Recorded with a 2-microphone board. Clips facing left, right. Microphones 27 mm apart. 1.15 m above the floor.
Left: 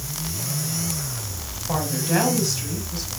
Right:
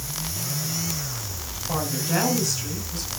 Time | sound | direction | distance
1.7 | a woman speaking | 20° left (ahead or behind) | 5.5 m